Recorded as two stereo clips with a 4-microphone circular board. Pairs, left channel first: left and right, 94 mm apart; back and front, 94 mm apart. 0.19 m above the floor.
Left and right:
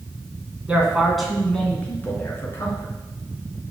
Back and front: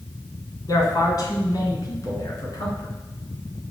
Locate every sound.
0.7 s a man speaking: 155° right, 1.7 m; by 2.9 s 135° left, 2.5 m